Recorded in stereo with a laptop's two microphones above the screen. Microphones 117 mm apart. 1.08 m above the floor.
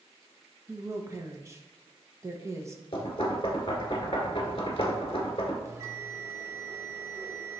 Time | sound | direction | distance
0.7 | a woman speaking | 25° right (ahead or behind) | 1.2 m
2.9 | knocking | 50° left (ahead or behind) | 1.9 m
5.7 | a bell | 25° right (ahead or behind) | 0.9 m